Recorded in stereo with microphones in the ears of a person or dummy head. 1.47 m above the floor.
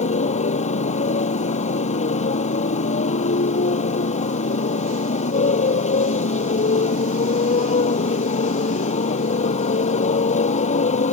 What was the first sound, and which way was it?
A motorcycle, 40° left (ahead or behind).